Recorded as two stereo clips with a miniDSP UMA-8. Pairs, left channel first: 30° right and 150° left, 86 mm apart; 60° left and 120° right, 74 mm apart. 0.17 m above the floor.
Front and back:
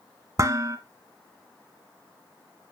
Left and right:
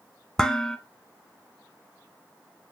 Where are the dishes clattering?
135° left, 1.0 m.